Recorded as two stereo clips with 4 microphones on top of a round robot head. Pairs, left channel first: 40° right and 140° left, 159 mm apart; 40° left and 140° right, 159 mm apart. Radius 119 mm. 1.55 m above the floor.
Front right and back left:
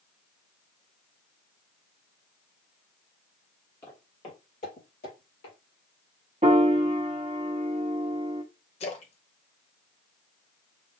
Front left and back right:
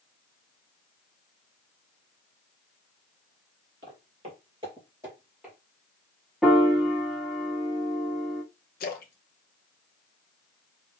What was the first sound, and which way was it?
Footsteps, 105° right.